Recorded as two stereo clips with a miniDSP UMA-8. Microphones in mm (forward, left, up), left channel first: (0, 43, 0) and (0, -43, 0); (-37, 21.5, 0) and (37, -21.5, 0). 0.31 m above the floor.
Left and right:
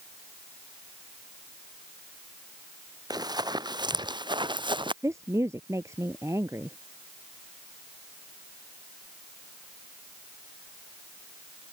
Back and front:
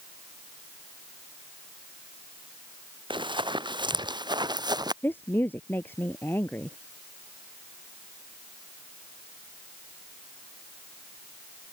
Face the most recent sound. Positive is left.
turn(degrees=-145)